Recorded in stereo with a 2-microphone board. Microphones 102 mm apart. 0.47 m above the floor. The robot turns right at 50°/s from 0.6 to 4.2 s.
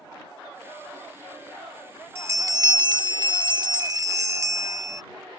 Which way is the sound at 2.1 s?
145° right.